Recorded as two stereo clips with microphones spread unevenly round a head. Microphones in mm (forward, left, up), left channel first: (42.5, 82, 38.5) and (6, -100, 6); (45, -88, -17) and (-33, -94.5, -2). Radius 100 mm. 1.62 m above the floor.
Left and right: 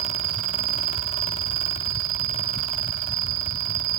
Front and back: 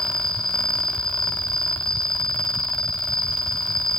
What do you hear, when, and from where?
0.0 s an insect: 80° right, 3 m